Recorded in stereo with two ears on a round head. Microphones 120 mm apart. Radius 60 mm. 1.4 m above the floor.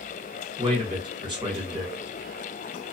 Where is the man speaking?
35° right (ahead or behind), 1.1 m.